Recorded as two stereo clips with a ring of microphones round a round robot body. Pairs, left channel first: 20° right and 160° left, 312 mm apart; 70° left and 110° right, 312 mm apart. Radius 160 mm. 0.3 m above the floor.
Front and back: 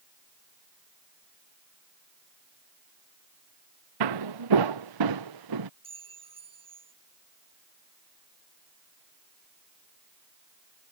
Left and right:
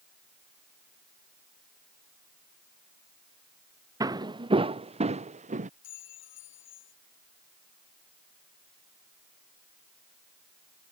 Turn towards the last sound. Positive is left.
turn(degrees=85)